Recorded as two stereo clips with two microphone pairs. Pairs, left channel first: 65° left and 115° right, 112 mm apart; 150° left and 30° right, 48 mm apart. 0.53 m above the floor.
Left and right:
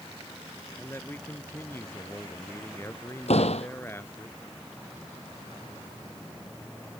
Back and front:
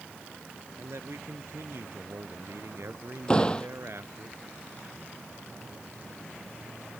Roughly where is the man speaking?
Ahead.